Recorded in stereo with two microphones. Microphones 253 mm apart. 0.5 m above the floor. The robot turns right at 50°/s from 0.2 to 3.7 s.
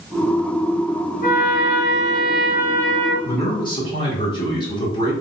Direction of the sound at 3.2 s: 10° left (ahead or behind).